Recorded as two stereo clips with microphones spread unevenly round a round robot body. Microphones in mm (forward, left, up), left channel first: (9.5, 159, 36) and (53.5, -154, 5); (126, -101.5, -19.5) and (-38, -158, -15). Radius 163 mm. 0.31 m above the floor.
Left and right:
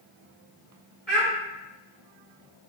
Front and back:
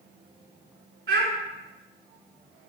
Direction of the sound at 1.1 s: 175° right.